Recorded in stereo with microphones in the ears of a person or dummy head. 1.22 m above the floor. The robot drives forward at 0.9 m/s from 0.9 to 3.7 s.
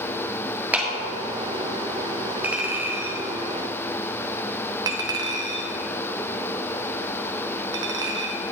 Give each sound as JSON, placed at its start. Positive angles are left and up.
{"t": 0.7, "sound": "a clap", "side_deg": -10, "distance_m": 1.7}
{"t": 2.4, "sound": "a clink", "side_deg": -10, "distance_m": 1.7}